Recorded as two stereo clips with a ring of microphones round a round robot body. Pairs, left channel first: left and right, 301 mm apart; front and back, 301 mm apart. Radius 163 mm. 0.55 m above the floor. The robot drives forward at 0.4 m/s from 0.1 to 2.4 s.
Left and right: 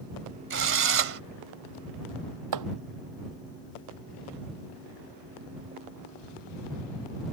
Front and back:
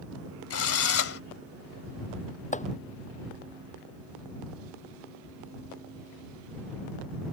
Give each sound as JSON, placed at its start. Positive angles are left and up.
{"t": 0.5, "sound": "a drill", "azimuth_deg": -40}
{"t": 2.5, "sound": "chopping", "azimuth_deg": -65}